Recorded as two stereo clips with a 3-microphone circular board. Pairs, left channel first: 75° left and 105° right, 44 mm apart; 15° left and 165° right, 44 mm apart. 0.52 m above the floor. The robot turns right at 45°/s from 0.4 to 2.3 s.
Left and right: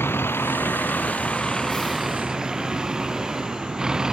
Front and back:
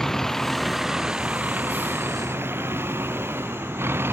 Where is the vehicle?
95° left; by 4.1 s straight behind.